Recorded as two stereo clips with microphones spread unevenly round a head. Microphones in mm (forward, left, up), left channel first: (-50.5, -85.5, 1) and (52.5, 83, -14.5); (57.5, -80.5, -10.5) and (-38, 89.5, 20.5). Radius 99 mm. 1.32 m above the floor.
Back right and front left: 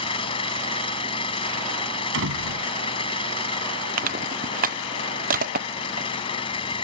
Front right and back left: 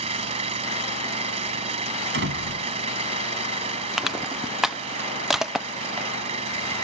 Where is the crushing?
25° left.